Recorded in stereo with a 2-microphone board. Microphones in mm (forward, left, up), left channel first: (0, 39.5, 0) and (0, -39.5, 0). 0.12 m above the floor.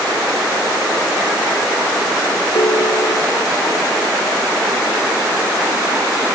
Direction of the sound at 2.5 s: 80° left.